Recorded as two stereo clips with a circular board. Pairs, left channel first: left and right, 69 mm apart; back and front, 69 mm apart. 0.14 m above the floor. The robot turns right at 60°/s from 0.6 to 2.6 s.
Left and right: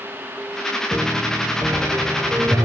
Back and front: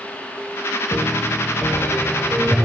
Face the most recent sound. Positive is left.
turn(degrees=-80)